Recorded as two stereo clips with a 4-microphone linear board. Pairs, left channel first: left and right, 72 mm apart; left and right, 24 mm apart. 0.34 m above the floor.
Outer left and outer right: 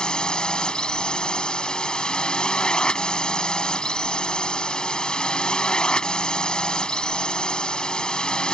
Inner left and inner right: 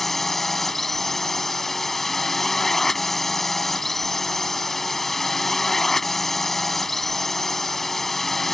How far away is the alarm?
No alarm in this recording.